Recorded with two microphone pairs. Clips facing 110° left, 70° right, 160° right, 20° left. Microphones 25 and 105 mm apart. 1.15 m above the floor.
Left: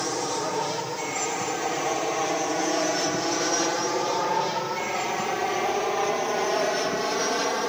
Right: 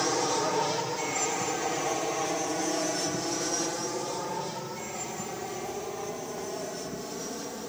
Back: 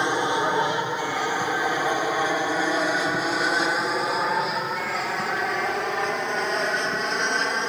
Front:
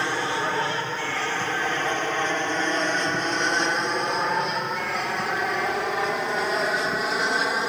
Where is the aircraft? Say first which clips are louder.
Even, back 3 dB; 150° right; by 7.7 s 105° left.